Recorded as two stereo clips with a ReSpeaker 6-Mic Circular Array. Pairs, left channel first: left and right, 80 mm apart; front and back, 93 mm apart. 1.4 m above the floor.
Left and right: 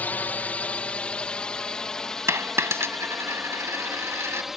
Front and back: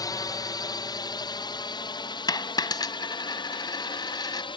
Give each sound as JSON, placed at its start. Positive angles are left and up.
{"t": 0.0, "sound": "a drone", "azimuth_deg": 25}
{"t": 2.3, "sound": "a dropped coin", "azimuth_deg": -35}